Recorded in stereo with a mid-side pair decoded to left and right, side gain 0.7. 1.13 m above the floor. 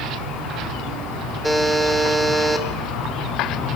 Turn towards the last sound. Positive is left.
turn(degrees=-5)